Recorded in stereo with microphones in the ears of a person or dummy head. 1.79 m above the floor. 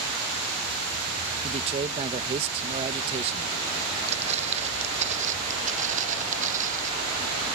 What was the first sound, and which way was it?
A man speaking, 30° right (ahead or behind).